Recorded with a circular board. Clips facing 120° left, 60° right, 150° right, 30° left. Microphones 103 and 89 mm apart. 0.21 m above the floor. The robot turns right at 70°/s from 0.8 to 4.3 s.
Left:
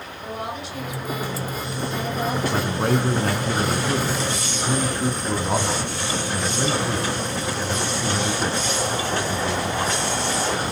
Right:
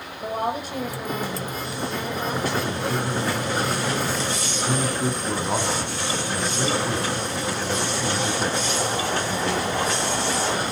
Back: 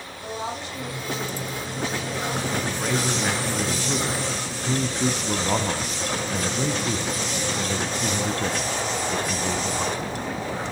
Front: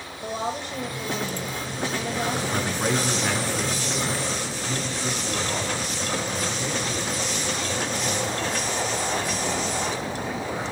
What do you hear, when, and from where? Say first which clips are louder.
0.2 s a woman speaking: right 5 dB, front 2 dB; 20° right, 9 m; by 2.4 s 95° left, 9 m
2.5 s a man speaking: left 3 dB, front 1 dB; 80° left, 2.5 m; by 10.0 s 155° right, 2.5 m